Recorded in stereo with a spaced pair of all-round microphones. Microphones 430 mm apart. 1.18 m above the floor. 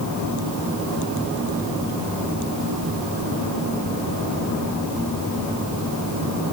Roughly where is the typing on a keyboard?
No typing on a keyboard in this recording.